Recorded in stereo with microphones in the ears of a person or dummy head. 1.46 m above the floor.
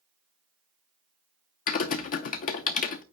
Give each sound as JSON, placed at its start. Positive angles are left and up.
{"t": 1.7, "sound": "typing on a keyboard", "side_deg": 50, "distance_m": 0.7}